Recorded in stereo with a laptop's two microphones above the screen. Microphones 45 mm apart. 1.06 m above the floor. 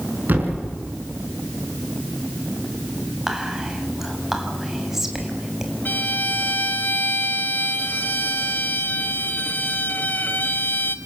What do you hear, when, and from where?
0.3 s a thud: 45° right (ahead or behind), 6 m
3.3 s whispering: 5° right (ahead or behind), 6 m
5.8 s a violin: 45° left (ahead or behind), 1.8 m